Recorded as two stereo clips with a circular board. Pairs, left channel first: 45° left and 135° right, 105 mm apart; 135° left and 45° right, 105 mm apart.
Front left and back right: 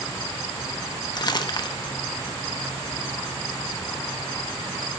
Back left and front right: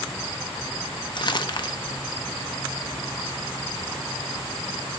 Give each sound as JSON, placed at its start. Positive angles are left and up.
{"t": 1.1, "sound": "crumpling", "azimuth_deg": 90, "distance_m": 0.5}